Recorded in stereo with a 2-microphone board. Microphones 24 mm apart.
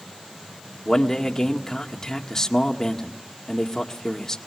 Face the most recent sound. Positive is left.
turn(degrees=20)  # may be behind; listen again after turning